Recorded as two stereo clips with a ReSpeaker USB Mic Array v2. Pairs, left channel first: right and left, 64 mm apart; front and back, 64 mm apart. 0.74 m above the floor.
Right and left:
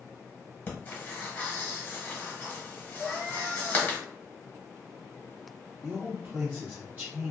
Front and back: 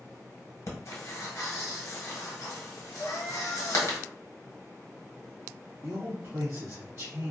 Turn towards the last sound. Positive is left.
turn(degrees=145)